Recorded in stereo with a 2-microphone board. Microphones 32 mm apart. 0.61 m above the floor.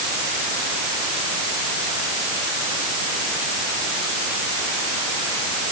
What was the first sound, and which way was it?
Only background noise.